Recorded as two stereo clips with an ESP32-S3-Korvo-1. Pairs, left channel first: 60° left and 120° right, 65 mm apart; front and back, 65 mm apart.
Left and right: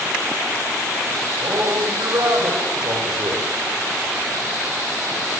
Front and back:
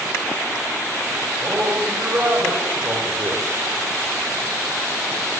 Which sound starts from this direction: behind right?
A man speaking, at 1.4 s.